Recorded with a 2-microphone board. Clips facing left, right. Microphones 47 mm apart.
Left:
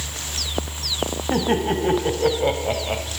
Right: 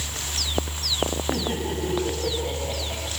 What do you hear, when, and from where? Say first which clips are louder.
1.3 s laughter: left 7 dB; 50° left (ahead or behind), 4 m; by 3.0 s 70° left (ahead or behind), 3.5 m